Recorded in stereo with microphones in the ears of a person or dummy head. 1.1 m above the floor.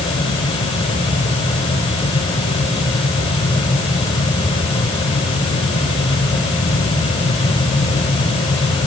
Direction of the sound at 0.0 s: 25° left (ahead or behind).